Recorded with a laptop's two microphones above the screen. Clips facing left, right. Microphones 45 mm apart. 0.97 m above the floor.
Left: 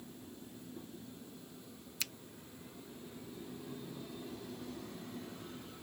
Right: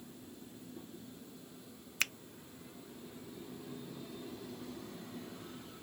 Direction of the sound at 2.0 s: 50° right (ahead or behind).